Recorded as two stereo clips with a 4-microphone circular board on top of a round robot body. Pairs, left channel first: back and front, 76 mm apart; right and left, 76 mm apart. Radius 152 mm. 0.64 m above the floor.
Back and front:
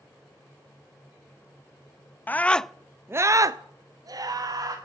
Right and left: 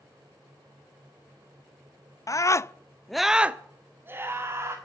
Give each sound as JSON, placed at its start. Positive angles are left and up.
{"t": 2.3, "sound": "a scream", "azimuth_deg": -120, "distance_m": 0.8}